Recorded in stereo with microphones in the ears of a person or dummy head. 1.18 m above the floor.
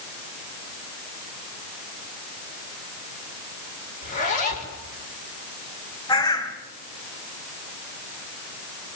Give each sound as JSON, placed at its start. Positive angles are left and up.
{"t": 4.0, "sound": "a zipper", "side_deg": 45, "distance_m": 5.0}
{"t": 6.1, "sound": "a bird", "side_deg": 20, "distance_m": 3.5}